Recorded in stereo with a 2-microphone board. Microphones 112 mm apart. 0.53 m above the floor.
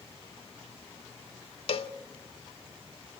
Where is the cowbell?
60° left (ahead or behind), 0.8 m.